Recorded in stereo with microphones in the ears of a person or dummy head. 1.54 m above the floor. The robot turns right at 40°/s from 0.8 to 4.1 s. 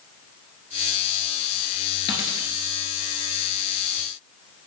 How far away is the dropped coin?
About 1.6 m.